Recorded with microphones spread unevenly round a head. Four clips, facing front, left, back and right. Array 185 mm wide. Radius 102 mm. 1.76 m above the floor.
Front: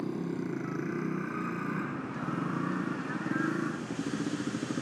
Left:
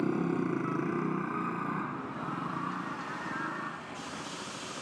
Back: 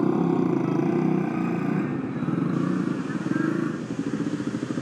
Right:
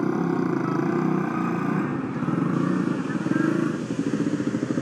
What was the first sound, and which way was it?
A motorcycle, 165° right.